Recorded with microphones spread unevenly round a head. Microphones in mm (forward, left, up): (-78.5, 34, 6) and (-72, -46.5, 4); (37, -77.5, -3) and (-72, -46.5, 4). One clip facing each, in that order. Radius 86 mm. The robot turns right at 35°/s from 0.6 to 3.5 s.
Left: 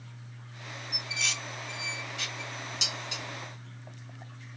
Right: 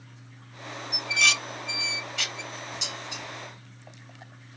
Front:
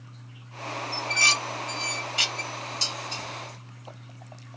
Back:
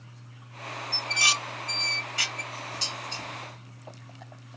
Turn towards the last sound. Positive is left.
turn(degrees=80)